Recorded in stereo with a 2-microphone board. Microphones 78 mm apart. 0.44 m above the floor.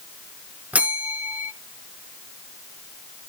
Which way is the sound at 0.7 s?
20° right (ahead or behind).